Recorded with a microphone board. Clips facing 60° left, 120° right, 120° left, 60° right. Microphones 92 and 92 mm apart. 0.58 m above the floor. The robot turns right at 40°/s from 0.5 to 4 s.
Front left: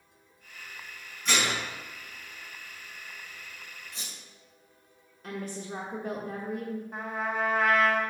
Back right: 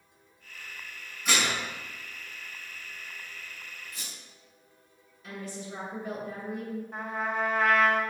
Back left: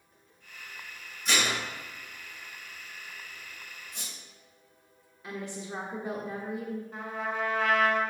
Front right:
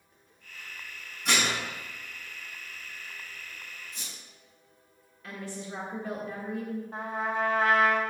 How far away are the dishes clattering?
About 3.5 m.